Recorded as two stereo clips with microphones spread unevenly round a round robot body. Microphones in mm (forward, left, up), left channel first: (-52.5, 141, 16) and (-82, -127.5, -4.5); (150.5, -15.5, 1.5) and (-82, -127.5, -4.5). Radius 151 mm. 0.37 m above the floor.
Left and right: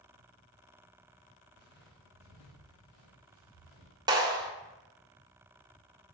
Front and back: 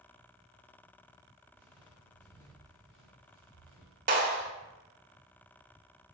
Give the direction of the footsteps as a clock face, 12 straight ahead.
7 o'clock.